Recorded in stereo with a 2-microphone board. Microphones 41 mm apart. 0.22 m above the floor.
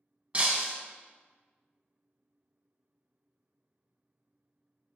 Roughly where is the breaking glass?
Right.